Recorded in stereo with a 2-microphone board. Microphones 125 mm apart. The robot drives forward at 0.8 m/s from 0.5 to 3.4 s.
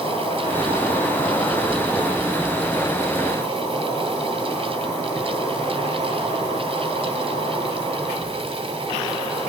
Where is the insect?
50° left (ahead or behind), 3 m; by 9.5 s 30° left (ahead or behind), 5 m.